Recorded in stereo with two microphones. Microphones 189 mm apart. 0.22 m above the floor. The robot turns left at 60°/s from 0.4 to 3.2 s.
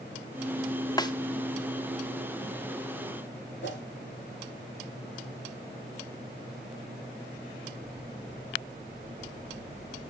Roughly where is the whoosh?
Left.